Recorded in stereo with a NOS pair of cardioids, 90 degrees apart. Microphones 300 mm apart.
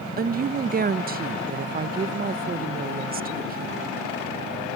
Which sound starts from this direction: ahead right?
A woman speaking, at 0.2 s.